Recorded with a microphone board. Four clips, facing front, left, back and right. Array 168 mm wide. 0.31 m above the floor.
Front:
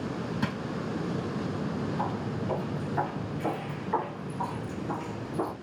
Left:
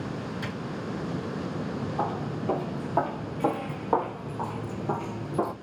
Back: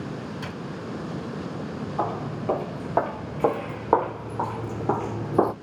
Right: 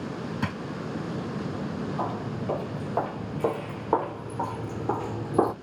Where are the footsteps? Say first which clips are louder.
Left 3 dB, back 3 dB; 170° left, 2.5 m; by 5.5 s 150° right, 0.7 m.